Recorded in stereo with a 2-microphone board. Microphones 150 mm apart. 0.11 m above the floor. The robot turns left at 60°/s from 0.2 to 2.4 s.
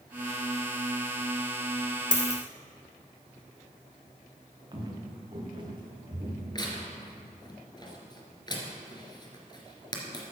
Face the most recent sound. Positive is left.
turn(degrees=30)  # may be behind; listen again after turning